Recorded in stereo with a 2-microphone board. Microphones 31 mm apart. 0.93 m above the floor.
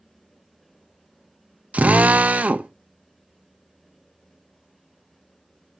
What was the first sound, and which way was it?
A drill, 55° right (ahead or behind).